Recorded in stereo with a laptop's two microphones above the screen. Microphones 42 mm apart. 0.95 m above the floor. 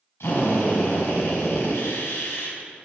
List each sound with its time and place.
0.2 s a drill: 75° left (ahead or behind), 4.5 m